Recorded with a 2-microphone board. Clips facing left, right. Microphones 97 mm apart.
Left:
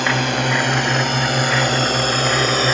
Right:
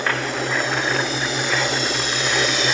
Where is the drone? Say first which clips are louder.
Left 4 dB; 65° left (ahead or behind); by 2.8 s 40° left (ahead or behind).